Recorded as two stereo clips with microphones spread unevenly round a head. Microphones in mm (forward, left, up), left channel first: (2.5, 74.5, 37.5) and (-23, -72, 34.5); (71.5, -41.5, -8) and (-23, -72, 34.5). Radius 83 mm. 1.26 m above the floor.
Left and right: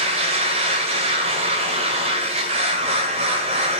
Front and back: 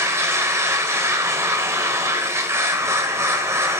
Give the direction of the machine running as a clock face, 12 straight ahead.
5 o'clock.